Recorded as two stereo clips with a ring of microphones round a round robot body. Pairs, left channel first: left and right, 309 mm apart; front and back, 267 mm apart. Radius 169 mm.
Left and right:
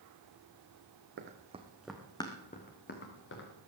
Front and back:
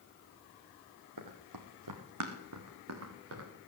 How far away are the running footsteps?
About 1.5 m.